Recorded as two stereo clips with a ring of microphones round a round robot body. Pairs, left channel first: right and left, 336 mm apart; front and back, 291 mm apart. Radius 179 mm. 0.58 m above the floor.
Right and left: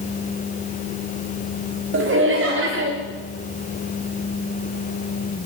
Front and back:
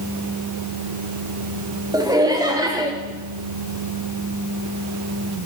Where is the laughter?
110° left, 1.4 m.